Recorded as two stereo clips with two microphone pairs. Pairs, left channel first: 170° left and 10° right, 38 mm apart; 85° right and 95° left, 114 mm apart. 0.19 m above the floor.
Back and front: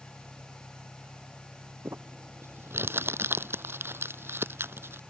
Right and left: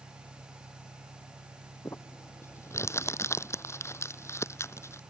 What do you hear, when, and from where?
0.0 s an engine running: 100° left
1.9 s crumpling: 20° right